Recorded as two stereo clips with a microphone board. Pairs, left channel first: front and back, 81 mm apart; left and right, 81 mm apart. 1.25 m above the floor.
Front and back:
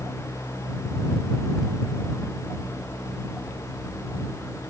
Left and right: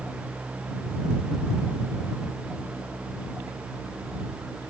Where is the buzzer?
No buzzer in this recording.